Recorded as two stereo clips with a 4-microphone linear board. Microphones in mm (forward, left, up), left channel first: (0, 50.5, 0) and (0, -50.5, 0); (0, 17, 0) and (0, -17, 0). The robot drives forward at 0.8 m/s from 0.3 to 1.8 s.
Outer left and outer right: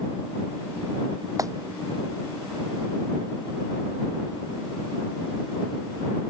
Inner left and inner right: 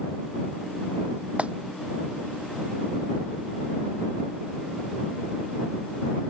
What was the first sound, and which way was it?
A clap, 35° right (ahead or behind).